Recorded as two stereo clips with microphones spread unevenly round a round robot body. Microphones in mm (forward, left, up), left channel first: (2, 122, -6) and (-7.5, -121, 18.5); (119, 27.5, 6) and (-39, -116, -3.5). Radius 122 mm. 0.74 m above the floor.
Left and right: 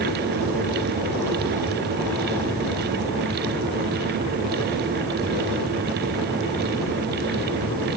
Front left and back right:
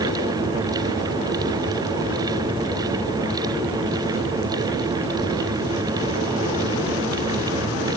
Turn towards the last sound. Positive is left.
No sound to turn to.